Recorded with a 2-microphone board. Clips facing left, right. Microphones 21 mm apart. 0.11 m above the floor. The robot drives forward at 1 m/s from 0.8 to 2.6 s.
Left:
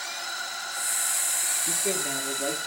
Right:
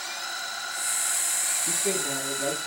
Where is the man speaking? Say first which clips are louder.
Even; 10° right (ahead or behind), 1.8 m; by 2.6 s 5° right (ahead or behind), 2.5 m.